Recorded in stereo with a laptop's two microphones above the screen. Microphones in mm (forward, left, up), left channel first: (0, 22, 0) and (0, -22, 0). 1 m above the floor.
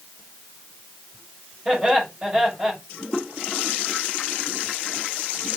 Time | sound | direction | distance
1.6 | laughter | 15° right (ahead or behind) | 5.5 m